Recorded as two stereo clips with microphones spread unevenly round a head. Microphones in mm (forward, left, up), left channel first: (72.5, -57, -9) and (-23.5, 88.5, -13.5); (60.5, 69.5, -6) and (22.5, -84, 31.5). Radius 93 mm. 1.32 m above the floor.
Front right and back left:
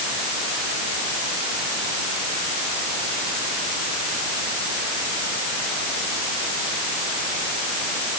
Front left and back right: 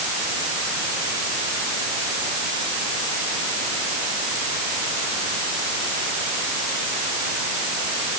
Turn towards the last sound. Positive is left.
No sound to turn to.